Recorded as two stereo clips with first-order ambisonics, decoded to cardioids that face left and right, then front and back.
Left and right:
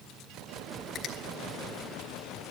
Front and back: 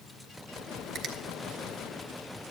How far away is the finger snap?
About 1.4 m.